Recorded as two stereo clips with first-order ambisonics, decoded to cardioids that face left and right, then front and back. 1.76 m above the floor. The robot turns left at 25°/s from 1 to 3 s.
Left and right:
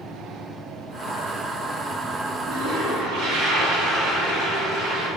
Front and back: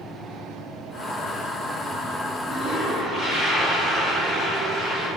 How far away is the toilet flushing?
About 2.5 m.